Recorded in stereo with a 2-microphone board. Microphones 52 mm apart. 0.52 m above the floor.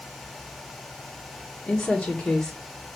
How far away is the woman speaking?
About 1.2 m.